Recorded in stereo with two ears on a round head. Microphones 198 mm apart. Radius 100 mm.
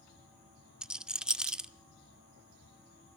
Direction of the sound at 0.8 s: 5° right (ahead or behind).